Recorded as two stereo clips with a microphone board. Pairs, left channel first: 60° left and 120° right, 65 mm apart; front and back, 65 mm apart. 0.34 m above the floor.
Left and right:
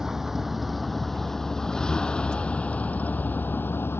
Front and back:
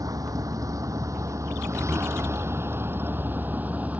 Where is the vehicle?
155° left; by 4.0 s 115° left.